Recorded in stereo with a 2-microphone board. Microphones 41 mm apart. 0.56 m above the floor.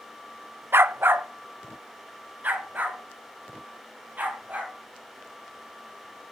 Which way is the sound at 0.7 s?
70° right (ahead or behind).